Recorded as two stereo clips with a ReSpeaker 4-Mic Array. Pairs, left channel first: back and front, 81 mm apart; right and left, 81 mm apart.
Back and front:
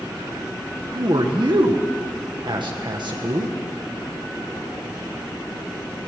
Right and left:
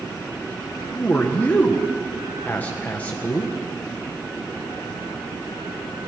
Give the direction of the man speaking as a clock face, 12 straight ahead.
1 o'clock.